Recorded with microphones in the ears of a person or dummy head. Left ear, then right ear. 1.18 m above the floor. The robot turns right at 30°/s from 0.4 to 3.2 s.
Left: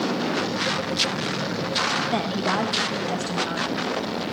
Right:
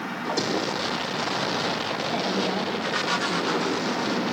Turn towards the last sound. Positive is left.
turn(degrees=155)